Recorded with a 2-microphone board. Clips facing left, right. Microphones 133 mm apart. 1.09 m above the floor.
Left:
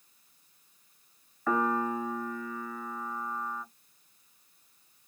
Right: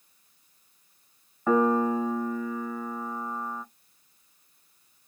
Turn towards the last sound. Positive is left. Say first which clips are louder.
# right 6 dB
turn(degrees=-25)  # may be behind; listen again after turning